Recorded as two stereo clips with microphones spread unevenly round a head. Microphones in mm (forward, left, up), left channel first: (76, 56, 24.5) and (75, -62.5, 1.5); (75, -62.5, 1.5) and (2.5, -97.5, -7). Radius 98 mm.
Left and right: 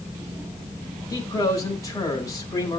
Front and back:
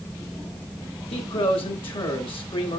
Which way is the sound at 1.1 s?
30° left.